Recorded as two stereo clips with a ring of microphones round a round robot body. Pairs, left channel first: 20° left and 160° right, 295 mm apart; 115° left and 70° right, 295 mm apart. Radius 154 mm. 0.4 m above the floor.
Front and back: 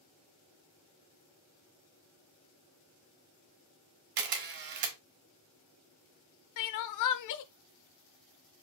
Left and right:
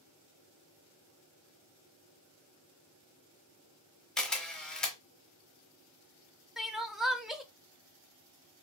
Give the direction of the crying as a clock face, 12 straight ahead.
11 o'clock.